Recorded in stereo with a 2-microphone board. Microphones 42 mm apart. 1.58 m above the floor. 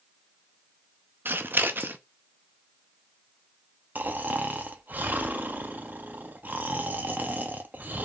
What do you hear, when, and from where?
1.2 s scissors: 50° right (ahead or behind), 0.6 m
4.0 s snoring: 40° right (ahead or behind), 0.6 m